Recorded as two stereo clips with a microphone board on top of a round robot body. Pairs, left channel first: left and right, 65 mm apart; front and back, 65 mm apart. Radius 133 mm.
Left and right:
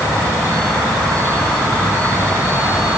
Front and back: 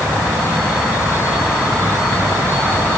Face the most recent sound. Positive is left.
No sound to turn to.